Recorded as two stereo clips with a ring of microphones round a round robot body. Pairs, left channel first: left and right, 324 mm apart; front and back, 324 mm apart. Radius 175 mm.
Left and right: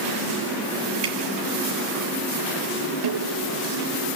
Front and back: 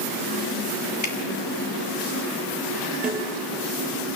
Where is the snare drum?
95° right, 4 m.